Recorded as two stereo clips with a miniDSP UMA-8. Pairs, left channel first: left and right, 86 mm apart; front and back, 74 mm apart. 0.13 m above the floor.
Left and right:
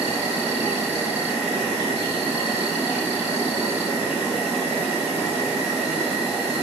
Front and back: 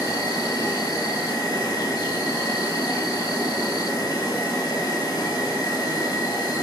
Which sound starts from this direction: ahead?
An insect, at 0.0 s.